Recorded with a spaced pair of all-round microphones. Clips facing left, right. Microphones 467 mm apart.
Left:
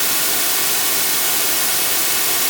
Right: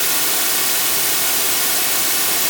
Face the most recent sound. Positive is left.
No sound to turn to.